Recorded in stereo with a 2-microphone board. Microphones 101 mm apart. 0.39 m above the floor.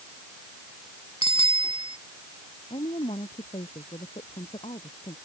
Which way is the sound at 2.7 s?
85° left.